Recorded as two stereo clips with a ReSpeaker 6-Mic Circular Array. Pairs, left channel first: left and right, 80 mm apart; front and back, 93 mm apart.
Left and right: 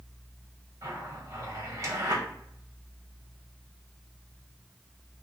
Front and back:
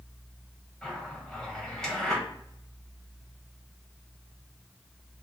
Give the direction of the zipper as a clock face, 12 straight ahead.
3 o'clock.